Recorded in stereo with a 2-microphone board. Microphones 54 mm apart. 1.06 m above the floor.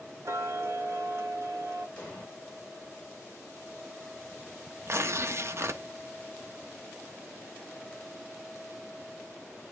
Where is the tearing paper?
50° right (ahead or behind), 1.0 m.